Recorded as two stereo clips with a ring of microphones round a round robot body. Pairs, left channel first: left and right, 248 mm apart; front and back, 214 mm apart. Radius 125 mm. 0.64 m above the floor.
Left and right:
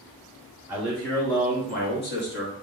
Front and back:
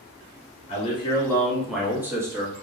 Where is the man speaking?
15° right, 0.8 m; by 2.6 s 110° left, 1.2 m.